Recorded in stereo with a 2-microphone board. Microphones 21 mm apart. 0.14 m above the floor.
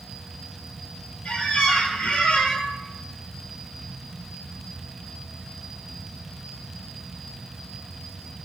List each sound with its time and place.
1.2 s a squeak: 75° left (ahead or behind), 0.6 m